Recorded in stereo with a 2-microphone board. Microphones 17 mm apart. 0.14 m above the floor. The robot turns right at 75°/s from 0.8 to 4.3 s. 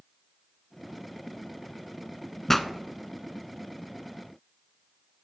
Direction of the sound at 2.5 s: 15° left (ahead or behind).